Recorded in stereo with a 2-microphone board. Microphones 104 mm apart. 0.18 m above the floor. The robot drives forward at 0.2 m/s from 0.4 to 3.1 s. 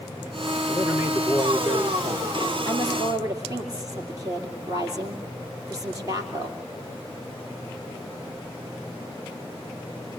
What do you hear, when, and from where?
0.7 s a man speaking: 20° right (ahead or behind), 3.5 m
2.7 s a woman speaking: 35° right (ahead or behind), 4 m; by 6.6 s 30° right (ahead or behind), 4 m